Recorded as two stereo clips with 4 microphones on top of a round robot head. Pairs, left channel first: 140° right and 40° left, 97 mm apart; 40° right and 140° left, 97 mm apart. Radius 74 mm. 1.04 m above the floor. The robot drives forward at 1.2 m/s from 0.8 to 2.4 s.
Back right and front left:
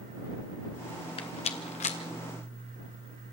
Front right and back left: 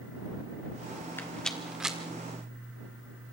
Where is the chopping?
No chopping in this recording.